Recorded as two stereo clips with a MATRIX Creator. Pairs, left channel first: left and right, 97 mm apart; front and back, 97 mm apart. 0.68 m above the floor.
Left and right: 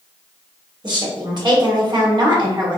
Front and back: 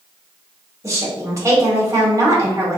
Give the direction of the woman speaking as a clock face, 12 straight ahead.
4 o'clock.